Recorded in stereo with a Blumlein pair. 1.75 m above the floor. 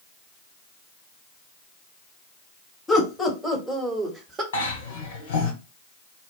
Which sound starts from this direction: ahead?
Laughter, at 2.9 s.